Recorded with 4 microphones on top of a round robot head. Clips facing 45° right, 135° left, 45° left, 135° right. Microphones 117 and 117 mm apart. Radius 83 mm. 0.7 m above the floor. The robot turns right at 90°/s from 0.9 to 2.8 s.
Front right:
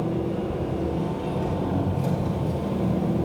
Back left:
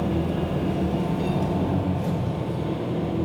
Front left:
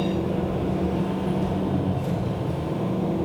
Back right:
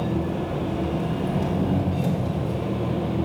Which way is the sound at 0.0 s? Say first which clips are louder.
Back left 1 dB, front left 1 dB; 145° left.